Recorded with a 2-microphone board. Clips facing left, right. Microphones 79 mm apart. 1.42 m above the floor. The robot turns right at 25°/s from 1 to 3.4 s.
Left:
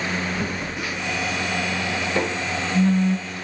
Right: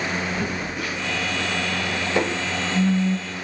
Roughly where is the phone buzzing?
Centre.